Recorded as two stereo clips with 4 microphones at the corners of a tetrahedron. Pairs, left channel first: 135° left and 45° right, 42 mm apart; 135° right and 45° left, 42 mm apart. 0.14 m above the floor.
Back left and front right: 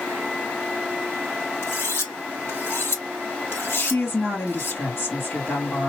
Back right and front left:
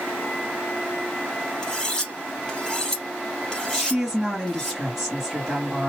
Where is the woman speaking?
120° left, 2.5 m.